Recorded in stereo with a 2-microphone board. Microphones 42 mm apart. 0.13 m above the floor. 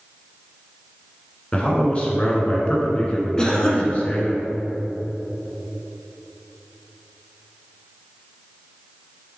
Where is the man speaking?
30° left (ahead or behind), 1.9 m.